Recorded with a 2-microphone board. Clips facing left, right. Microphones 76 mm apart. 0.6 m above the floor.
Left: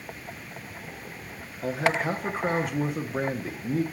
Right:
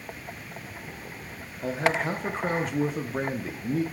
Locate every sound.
1.6 s a man speaking: 5° left (ahead or behind), 0.6 m